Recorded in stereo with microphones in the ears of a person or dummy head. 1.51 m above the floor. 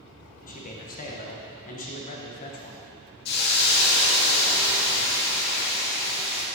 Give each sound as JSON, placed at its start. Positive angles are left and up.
{"t": 0.5, "sound": "a man speaking", "side_deg": 40, "distance_m": 1.1}
{"t": 3.2, "sound": "a hiss", "side_deg": 55, "distance_m": 1.6}